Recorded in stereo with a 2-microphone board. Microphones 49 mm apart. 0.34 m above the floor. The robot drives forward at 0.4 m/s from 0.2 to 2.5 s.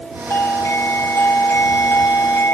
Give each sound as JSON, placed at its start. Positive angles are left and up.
{"t": 0.3, "sound": "a doorbell", "side_deg": 55}